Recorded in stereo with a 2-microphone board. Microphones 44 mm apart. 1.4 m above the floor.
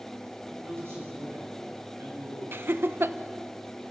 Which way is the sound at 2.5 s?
60° right (ahead or behind).